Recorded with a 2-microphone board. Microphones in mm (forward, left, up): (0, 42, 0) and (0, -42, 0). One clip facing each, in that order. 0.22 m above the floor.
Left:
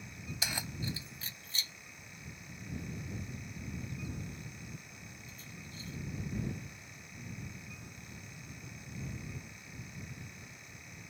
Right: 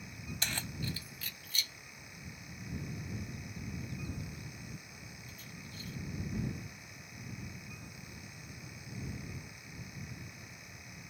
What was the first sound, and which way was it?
Keys jangling, 5° left (ahead or behind).